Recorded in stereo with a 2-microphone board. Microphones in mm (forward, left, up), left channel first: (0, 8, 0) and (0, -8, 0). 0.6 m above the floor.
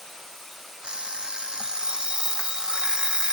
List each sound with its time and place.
0.8 s an alarm clock: 85° right